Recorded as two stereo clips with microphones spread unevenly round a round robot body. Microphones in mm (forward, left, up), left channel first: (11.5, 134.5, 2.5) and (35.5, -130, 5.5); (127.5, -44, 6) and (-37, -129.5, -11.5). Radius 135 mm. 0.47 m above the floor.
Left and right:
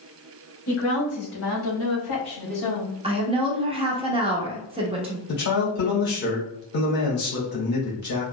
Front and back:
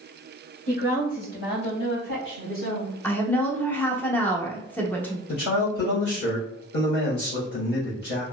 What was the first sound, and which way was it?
A woman speaking, 75° left.